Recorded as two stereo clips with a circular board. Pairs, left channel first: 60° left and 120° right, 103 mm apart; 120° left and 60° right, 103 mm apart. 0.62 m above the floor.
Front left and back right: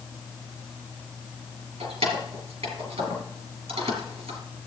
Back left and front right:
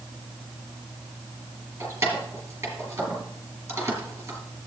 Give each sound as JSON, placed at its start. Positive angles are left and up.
{"t": 1.8, "sound": "keys jangling", "azimuth_deg": -125, "distance_m": 3.5}